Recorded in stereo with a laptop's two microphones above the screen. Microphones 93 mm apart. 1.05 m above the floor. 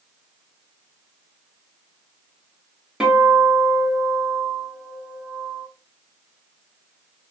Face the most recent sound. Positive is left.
turn(degrees=-5)  # may be behind; listen again after turning